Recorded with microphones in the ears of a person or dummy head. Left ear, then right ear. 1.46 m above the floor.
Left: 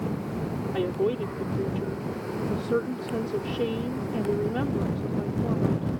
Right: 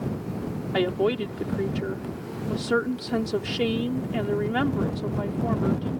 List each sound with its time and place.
0.7 s a woman speaking: 50° right (ahead or behind)